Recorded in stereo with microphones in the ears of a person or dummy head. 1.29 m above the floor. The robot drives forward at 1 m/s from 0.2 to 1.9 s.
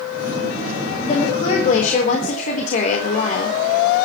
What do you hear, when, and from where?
1.0 s a woman speaking: 40° left (ahead or behind), 4.5 m; by 3.6 s 50° left (ahead or behind), 4 m